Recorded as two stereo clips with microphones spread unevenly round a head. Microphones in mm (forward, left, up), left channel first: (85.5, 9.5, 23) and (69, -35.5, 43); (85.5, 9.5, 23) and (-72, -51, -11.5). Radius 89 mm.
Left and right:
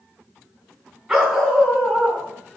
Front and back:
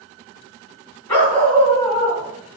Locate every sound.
1.1 s a dog barking: 50° right, 3.5 m; by 2.6 s 70° right, 3 m